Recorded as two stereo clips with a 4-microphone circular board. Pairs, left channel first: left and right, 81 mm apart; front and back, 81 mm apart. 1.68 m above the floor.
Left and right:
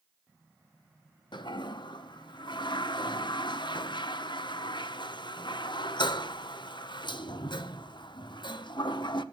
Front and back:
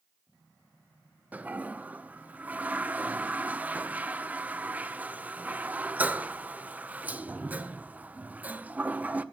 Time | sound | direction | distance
1.3 | a toilet flushing | 110° left | 0.9 m